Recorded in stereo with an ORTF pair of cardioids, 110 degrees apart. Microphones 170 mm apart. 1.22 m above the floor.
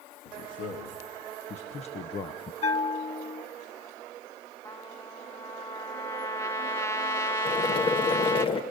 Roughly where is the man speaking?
Ahead left.